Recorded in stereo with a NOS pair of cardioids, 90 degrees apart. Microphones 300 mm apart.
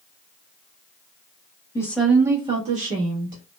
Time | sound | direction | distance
1.8 | a woman speaking | 10° left | 1.1 m